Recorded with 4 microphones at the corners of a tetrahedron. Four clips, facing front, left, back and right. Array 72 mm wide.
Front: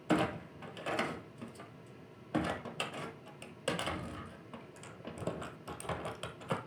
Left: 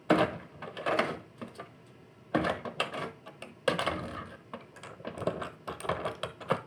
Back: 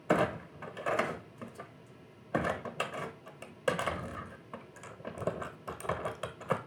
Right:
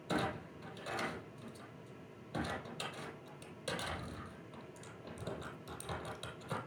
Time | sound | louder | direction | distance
0.1 | a clunk | left 11 dB, back 3 dB | 110° left | 0.9 m